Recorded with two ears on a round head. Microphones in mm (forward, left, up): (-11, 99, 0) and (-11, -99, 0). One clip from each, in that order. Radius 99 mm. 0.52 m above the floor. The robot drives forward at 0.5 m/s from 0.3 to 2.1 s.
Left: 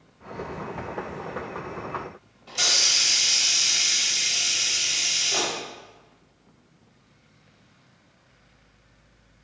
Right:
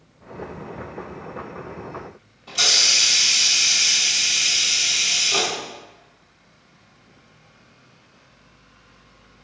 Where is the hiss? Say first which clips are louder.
Right 4 dB; centre (ahead or behind), 1.1 m.